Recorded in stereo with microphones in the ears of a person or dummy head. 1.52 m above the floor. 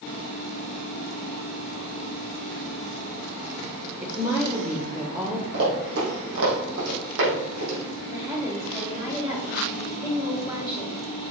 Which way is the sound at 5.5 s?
50° right (ahead or behind).